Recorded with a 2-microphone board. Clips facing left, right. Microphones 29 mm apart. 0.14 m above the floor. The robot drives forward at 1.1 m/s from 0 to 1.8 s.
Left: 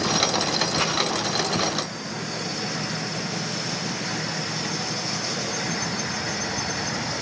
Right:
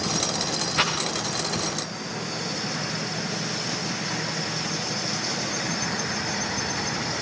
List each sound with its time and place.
0.8 s a rattle: 40° right (ahead or behind), 9.5 m